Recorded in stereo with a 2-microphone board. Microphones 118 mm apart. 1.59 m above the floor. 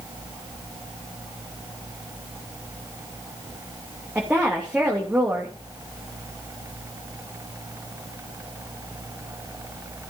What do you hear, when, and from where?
4.2 s a woman speaking: 15° right (ahead or behind), 3 m